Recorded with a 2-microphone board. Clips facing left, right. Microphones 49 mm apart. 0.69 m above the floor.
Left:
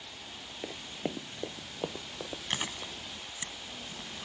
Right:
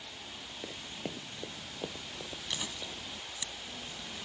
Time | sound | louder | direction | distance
0.6 | running footsteps | left 5 dB | 20° left (ahead or behind) | ?
2.5 | chewing | left 4 dB | 45° left (ahead or behind) | ?